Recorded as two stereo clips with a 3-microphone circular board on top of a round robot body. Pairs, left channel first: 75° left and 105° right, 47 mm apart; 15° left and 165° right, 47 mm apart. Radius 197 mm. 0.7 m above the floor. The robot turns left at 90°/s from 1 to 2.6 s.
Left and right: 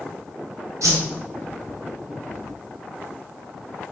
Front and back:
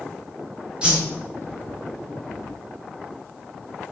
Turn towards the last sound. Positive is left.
turn(degrees=120)